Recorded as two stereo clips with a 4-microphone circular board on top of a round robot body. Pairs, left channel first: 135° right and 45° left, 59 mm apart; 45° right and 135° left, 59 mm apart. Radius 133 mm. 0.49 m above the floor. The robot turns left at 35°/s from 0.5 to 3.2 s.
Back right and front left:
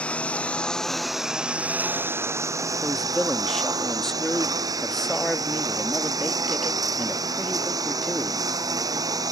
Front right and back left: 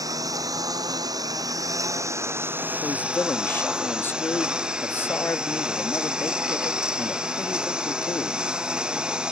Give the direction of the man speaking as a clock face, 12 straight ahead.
2 o'clock.